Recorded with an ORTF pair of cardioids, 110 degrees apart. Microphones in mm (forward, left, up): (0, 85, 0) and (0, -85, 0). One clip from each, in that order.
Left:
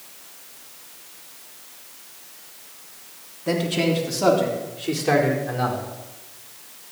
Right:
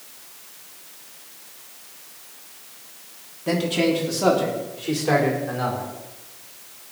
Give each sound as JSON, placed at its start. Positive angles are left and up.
{"t": 3.5, "sound": "a man speaking", "azimuth_deg": 0, "distance_m": 3.0}